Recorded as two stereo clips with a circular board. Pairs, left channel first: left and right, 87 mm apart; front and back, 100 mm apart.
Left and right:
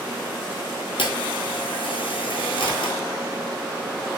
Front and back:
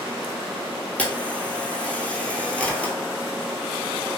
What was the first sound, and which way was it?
A camera shutter, 75° left.